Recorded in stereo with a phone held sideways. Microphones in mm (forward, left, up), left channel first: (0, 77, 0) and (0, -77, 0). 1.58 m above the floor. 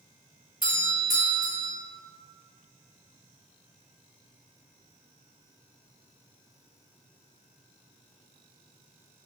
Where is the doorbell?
65° left (ahead or behind), 1.4 m.